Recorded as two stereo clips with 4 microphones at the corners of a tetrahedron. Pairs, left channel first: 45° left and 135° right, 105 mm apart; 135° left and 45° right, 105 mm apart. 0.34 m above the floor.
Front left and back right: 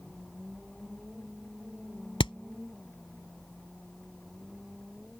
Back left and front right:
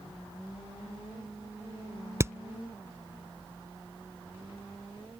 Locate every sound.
2.2 s hammering: 15° left